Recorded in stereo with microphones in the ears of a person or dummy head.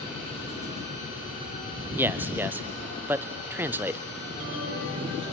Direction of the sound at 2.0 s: 15° right (ahead or behind).